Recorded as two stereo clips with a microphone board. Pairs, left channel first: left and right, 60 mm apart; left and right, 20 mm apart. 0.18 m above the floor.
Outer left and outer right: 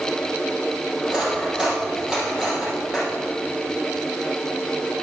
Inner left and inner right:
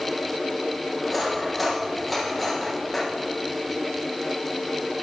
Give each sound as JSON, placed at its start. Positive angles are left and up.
{"t": 1.0, "sound": "cutlery clinking", "side_deg": -10, "distance_m": 4.0}